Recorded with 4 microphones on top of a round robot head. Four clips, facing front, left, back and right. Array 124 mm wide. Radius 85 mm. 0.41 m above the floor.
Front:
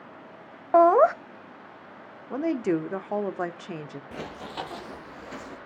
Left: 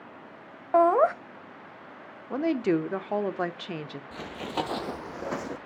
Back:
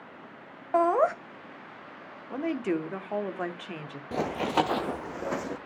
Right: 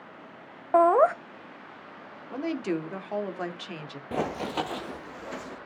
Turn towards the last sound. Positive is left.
turn(degrees=135)